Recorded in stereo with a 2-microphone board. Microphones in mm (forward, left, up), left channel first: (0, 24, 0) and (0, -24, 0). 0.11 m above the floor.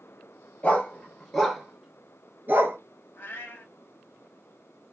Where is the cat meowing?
40° left (ahead or behind), 1.0 m.